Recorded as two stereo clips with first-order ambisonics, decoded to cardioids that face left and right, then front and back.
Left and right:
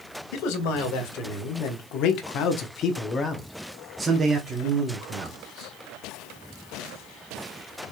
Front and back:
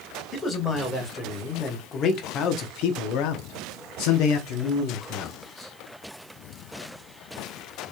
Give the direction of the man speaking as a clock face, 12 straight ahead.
9 o'clock.